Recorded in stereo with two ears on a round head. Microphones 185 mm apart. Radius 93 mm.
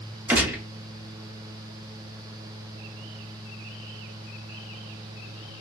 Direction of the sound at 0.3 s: 10° right (ahead or behind).